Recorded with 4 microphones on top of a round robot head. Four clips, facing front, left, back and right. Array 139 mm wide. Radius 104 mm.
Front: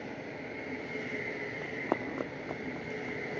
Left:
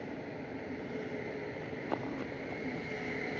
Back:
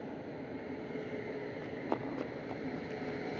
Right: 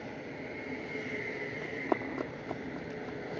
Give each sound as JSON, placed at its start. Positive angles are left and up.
{"t": 1.6, "sound": "running footsteps", "azimuth_deg": -30, "distance_m": 3.5}